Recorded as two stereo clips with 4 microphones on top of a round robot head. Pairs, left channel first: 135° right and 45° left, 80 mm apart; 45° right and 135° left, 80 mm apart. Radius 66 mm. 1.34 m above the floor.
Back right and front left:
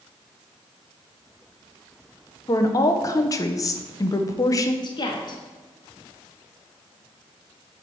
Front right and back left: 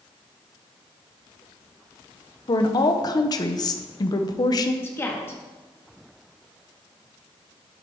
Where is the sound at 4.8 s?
105° right, 1.1 m.